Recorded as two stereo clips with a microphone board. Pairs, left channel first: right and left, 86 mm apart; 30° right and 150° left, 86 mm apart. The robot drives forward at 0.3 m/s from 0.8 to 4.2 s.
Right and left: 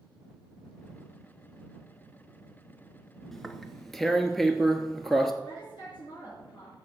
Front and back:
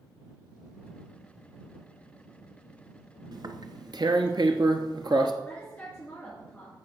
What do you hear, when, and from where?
3.3 s tearing paper: 175° right, 0.6 m
5.4 s a woman speaking: 100° right, 3 m